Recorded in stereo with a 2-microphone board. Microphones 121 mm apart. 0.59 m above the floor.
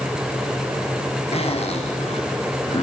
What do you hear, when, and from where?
1.3 s a zipper: 60° left (ahead or behind), 5 m